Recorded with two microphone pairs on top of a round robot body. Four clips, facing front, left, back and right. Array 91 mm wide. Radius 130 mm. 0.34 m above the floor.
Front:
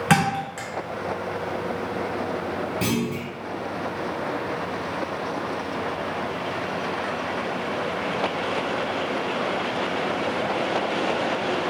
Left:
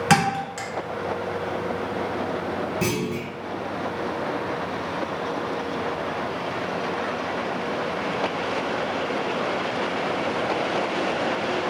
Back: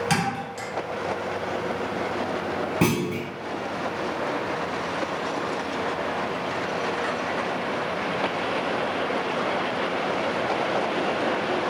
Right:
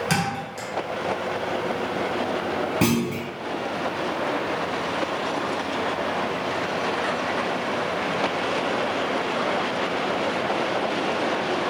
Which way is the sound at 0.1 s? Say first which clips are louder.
Left 5 dB, front 4 dB; 40° left.